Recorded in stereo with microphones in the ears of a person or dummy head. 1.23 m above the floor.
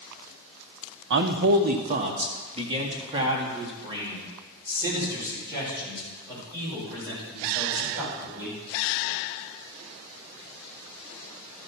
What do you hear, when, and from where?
1.1 s a man speaking: 55° right (ahead or behind), 0.7 m; by 8.6 s 15° right (ahead or behind), 5 m